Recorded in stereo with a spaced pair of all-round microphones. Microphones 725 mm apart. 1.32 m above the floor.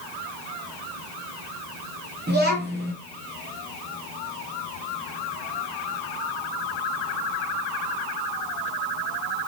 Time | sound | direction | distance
2.3 | a child speaking | 15° right (ahead or behind) | 0.6 m